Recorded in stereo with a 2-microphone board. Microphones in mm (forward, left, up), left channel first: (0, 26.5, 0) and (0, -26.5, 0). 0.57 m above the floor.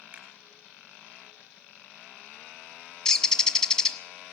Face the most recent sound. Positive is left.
turn(degrees=15)  # may be behind; listen again after turning